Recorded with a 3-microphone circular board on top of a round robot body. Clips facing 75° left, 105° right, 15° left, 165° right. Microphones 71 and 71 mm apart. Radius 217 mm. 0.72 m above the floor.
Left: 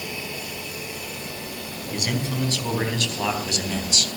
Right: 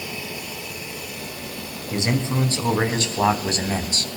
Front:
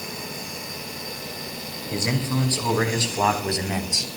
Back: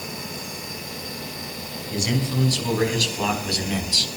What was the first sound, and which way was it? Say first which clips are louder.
A man speaking: right 4 dB, even; 45° right.